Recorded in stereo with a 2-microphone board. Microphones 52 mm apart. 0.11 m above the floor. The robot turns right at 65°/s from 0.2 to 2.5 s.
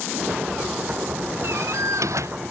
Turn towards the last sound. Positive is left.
turn(degrees=-55)